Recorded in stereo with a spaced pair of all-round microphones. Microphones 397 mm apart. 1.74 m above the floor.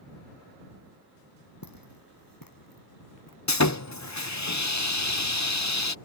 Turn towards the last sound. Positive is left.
turn(degrees=45)  # may be behind; listen again after turning